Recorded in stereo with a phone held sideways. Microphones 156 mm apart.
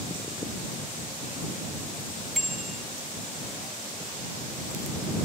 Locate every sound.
2.4 s a bicycle bell: centre (ahead or behind)